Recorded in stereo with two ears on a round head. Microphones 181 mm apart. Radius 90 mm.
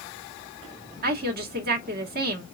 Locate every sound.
1.0 s a woman speaking: 50° right (ahead or behind), 1.4 m